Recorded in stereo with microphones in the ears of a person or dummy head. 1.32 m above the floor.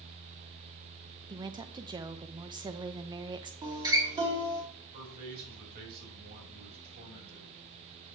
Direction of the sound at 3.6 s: 25° right (ahead or behind).